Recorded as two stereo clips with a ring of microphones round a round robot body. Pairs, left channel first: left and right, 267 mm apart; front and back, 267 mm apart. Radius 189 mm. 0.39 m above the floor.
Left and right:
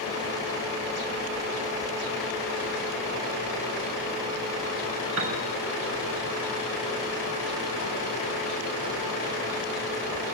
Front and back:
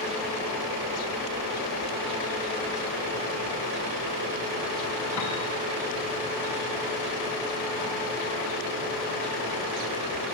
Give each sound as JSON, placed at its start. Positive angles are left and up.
{"t": 5.2, "sound": "a piano", "azimuth_deg": -55, "distance_m": 6.0}